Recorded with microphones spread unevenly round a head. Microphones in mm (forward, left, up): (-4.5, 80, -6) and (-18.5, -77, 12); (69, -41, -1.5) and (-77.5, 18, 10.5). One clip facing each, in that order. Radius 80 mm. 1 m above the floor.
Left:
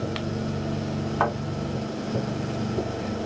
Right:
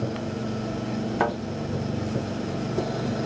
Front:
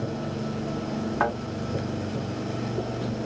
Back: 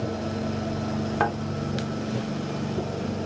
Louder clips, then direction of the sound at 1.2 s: Even, even; 155° right.